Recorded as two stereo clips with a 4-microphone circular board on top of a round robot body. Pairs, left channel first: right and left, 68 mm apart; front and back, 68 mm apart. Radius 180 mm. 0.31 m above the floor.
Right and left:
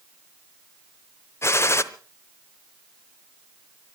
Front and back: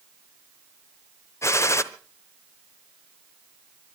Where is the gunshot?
45° right, 1.1 m.